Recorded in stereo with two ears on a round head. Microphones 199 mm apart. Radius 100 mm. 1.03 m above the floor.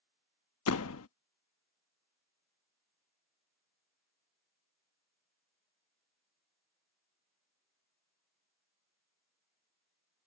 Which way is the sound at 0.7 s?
75° left (ahead or behind).